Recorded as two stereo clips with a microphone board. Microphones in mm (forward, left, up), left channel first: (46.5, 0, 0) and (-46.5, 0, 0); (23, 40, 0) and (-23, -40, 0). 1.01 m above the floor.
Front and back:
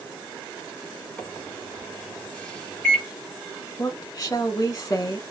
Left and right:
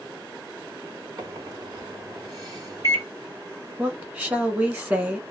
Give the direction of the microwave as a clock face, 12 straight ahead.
3 o'clock.